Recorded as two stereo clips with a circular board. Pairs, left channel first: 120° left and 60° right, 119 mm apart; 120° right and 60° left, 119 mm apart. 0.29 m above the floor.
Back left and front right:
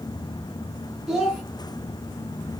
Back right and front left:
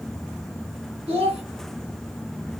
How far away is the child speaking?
About 1.8 m.